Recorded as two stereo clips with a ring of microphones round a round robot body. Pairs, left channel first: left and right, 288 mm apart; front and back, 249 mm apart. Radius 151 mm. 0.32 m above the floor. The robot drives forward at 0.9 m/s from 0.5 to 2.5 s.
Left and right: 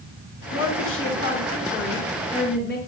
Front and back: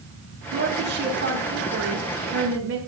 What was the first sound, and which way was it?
A woman speaking, 125° left.